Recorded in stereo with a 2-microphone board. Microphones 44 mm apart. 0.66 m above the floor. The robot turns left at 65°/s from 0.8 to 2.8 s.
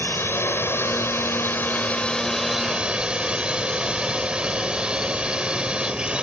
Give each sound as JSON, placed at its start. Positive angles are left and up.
{"t": 0.0, "sound": "a drone", "azimuth_deg": 110}